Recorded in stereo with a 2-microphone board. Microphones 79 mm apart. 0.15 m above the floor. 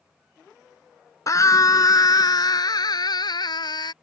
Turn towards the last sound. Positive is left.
turn(degrees=65)  # may be behind; listen again after turning